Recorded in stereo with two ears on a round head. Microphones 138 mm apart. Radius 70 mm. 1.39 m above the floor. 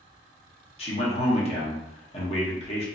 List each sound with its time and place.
0.8 s a man speaking: 40° left (ahead or behind), 1.2 m